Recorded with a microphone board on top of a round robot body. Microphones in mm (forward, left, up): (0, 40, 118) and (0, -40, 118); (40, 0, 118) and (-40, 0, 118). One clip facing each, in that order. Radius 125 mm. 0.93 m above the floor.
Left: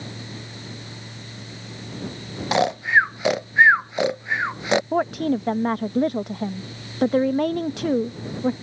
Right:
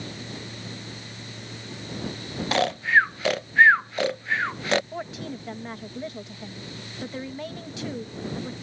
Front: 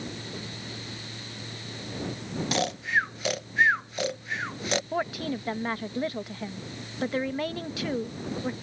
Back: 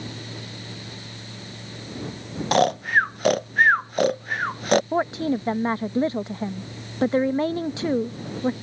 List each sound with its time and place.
2.5 s snoring: 160° left
4.9 s a woman speaking: 120° left